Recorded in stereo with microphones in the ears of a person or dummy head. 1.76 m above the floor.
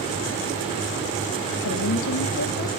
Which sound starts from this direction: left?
A woman speaking, at 1.6 s.